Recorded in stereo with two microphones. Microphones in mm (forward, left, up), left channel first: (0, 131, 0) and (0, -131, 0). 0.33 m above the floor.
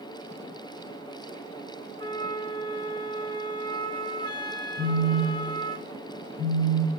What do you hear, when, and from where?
2.0 s a flute: 15° left (ahead or behind), 0.7 m
4.8 s a phone buzzing: 5° left (ahead or behind), 1.2 m